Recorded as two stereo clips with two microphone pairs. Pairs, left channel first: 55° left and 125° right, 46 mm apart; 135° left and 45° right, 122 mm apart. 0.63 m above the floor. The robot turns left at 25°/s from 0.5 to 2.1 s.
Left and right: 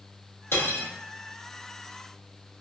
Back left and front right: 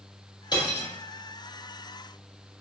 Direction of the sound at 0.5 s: 85° left.